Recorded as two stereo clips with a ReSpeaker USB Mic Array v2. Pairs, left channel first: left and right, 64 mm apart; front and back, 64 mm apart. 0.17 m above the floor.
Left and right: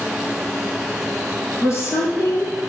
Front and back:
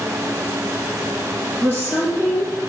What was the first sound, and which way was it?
A woman speaking, 50° left.